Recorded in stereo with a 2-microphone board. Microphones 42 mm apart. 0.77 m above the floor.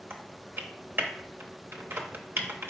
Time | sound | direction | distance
0.1 | typing on a keyboard | 60° right (ahead or behind) | 0.7 m